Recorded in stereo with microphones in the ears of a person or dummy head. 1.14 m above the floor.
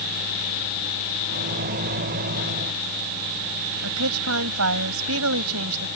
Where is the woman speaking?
85° right.